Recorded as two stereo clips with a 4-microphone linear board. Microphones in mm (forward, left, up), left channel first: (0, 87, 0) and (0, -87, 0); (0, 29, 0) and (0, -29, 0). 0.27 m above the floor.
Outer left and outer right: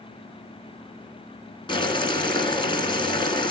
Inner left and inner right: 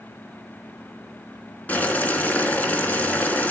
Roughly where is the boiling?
Left.